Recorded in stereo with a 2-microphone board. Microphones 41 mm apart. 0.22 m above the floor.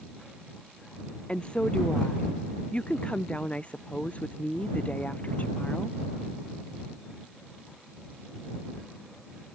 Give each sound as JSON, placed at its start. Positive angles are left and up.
{"t": 1.3, "sound": "a woman speaking", "side_deg": 25}